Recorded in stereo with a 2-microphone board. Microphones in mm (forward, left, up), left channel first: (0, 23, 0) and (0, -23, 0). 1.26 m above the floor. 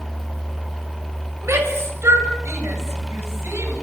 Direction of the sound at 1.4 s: 85° right.